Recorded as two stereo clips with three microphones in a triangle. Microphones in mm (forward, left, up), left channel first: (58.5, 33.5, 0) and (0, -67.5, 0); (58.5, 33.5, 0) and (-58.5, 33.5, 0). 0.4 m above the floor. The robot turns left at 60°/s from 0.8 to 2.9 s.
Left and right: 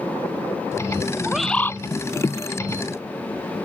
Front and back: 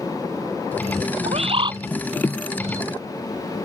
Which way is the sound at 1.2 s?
160° left.